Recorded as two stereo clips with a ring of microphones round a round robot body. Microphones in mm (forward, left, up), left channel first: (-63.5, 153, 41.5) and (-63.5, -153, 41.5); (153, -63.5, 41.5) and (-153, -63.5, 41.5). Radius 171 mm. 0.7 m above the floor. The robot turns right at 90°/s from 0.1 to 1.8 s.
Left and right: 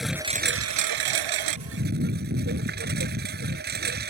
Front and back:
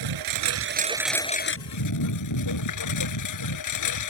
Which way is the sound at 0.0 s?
Straight behind.